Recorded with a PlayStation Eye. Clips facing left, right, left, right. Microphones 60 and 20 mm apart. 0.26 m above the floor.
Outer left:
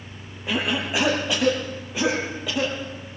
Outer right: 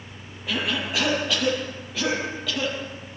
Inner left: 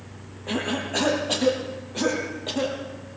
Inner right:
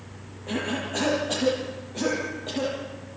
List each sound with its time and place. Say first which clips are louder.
0.5 s a cough: outer left 2 dB, inner left 2 dB; 20° left (ahead or behind), 6.5 m